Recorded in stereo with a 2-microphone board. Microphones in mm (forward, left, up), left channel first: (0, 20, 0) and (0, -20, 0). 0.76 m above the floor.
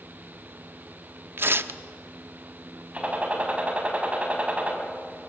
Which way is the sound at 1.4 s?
65° right (ahead or behind).